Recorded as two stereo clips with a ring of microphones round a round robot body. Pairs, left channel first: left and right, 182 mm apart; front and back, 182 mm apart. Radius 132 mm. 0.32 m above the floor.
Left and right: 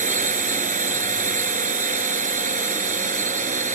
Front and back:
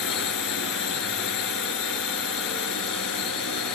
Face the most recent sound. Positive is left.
turn(degrees=-40)